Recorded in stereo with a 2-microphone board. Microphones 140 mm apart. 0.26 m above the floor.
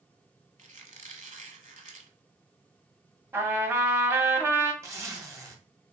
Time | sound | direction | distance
0.6 | a squeak | 60° right (ahead or behind) | 0.9 m
3.3 | a trumpet | 15° right (ahead or behind) | 0.7 m
4.8 | a zipper | 20° right (ahead or behind) | 1.1 m